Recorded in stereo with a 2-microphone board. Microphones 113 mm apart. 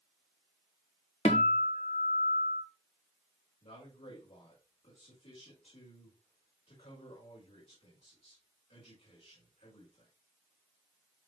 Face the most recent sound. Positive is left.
turn(degrees=80)